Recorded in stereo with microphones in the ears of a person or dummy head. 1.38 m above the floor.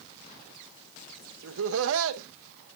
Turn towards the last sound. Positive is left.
turn(degrees=-80)